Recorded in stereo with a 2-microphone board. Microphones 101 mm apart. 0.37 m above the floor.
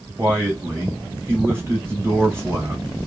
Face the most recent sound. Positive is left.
turn(degrees=-25)  # may be behind; listen again after turning